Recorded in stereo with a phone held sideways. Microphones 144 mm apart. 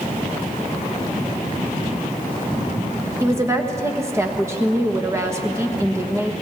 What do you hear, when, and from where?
3.2 s a woman speaking: 20° right (ahead or behind), 1.2 m